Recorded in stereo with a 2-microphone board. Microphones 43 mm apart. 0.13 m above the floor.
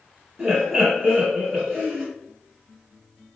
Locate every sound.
0.4 s laughter: 5° right (ahead or behind), 1.1 m